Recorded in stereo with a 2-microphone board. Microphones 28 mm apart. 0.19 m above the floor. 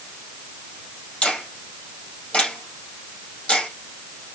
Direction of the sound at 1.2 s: 40° left (ahead or behind).